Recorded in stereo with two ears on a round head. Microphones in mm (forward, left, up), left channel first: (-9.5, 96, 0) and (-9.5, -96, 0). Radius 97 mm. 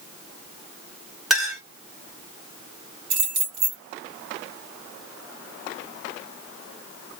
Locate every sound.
1.3 s a clink: centre (ahead or behind), 1.5 m
3.1 s keys jangling: 45° right (ahead or behind), 1.8 m